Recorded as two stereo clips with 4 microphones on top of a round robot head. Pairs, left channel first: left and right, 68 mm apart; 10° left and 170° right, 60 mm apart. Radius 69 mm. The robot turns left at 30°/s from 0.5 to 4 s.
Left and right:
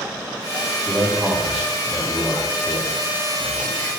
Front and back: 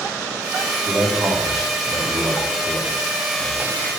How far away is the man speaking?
About 3 m.